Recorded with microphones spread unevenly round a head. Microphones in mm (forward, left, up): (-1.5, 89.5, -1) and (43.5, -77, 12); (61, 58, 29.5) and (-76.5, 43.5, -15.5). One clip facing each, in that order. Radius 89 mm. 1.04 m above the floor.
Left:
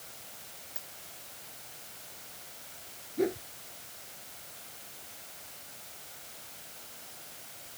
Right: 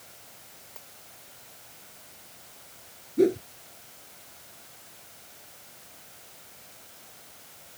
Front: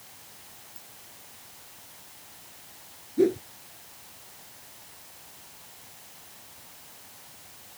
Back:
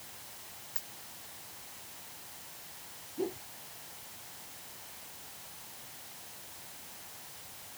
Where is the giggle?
I don't hear a giggle.